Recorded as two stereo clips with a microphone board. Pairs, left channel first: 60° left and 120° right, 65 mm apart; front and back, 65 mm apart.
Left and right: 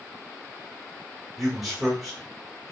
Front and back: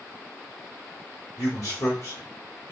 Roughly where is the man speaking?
Ahead right.